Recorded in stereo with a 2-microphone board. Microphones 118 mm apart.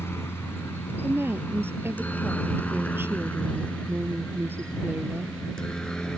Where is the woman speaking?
20° right (ahead or behind).